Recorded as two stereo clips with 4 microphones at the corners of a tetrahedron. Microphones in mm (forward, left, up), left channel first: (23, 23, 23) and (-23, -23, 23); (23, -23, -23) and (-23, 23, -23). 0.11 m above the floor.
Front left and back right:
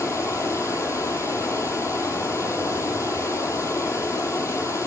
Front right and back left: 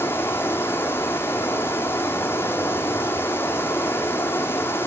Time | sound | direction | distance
0.0 | running water | 10° left | 1.2 m